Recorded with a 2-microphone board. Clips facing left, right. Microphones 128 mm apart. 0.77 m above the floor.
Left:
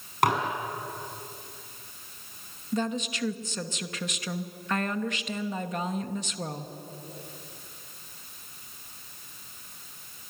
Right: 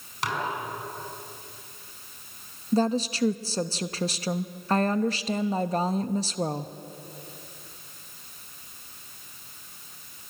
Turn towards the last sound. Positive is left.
turn(degrees=-35)  # may be behind; listen again after turning